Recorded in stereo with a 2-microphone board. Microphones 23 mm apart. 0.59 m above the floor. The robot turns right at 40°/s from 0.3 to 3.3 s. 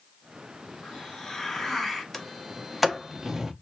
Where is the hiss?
130° left, 1.9 m; by 2.0 s straight behind, 1.9 m.